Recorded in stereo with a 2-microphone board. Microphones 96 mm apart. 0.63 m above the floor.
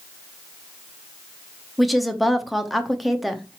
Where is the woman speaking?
Centre (ahead or behind), 0.6 m.